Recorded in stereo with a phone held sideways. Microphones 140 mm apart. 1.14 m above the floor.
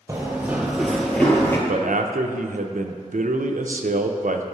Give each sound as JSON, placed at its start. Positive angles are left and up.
{"t": 0.1, "sound": "running footsteps", "side_deg": -20, "distance_m": 1.3}
{"t": 1.7, "sound": "a man speaking", "side_deg": -85, "distance_m": 0.5}